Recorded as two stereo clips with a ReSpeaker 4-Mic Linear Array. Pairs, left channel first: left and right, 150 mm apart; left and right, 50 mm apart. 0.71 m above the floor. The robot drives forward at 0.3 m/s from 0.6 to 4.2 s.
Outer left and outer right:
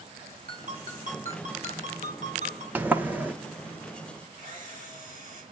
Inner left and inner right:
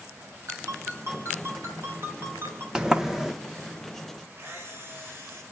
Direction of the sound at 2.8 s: 10° right (ahead or behind).